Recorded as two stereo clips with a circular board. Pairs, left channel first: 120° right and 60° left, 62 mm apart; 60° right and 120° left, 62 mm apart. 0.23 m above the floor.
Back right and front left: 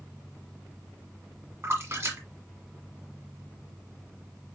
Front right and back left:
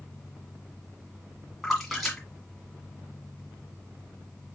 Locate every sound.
1.6 s a splash: 30° left, 1.8 m